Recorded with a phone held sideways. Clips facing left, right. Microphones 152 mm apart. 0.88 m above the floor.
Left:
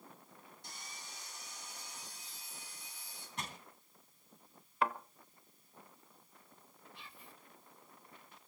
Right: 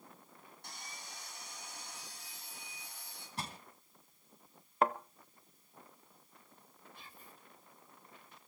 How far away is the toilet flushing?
I don't hear a toilet flushing.